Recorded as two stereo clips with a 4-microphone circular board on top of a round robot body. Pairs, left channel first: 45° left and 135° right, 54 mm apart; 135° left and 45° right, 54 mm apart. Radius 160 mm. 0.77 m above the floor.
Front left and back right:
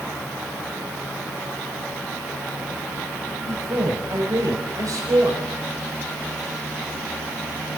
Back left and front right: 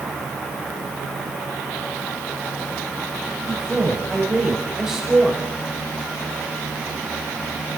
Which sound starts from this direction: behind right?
A man speaking, at 3.5 s.